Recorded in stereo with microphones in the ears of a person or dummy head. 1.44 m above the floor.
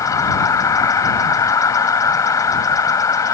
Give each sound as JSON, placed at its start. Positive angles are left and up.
{"t": 0.0, "sound": "an insect", "side_deg": 20}